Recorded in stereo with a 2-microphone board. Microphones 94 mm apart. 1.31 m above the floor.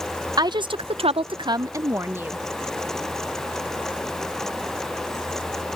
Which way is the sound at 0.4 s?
45° right (ahead or behind).